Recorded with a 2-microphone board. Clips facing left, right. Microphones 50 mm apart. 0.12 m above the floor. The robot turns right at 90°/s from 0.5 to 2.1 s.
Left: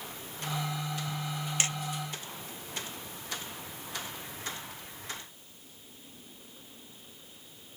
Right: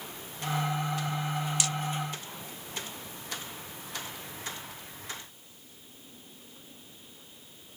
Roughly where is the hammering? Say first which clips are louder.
Even; left.